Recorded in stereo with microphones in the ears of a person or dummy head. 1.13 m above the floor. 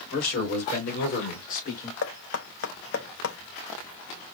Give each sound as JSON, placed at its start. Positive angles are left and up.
{"t": 0.1, "sound": "a man speaking", "side_deg": 60, "distance_m": 3.0}
{"t": 2.0, "sound": "knocking", "side_deg": 75, "distance_m": 0.7}